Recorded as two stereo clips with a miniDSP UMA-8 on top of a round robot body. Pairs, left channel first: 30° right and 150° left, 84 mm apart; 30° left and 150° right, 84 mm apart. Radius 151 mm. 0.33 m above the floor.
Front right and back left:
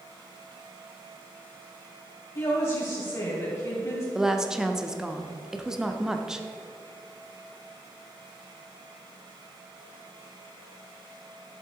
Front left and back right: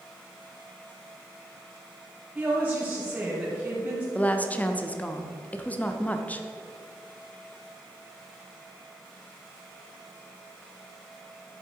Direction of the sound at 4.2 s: 75° left.